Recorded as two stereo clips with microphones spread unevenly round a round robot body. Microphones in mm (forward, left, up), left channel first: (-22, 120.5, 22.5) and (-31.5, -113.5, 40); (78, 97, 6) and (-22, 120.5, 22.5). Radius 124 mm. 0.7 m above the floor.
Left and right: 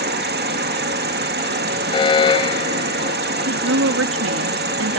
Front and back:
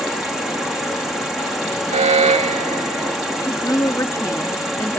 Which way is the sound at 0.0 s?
100° right.